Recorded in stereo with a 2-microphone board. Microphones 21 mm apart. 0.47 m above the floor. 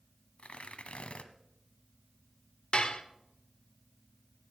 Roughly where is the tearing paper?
Left.